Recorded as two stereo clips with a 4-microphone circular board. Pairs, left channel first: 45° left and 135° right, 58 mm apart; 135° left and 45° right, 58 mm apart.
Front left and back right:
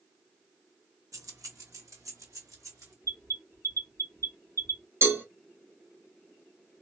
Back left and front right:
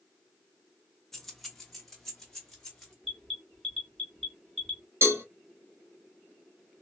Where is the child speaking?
I don't hear a child speaking.